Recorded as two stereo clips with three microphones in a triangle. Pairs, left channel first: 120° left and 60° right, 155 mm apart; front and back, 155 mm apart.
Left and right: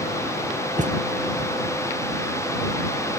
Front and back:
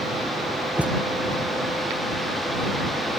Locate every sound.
0.8 s a thud: 100° right